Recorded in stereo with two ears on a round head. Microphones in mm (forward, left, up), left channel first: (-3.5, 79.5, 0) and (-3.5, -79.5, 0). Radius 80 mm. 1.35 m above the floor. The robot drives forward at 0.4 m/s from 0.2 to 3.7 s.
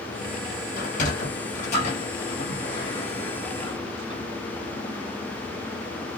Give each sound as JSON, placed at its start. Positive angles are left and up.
{"t": 0.8, "sound": "a sliding door", "side_deg": 50, "distance_m": 1.2}